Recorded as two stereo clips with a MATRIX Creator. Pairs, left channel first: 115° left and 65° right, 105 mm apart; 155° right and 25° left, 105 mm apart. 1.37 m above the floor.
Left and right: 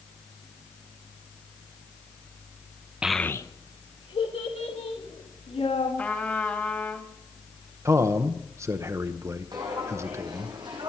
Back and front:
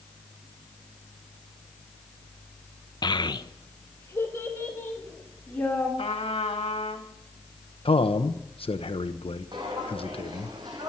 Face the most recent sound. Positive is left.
turn(degrees=-25)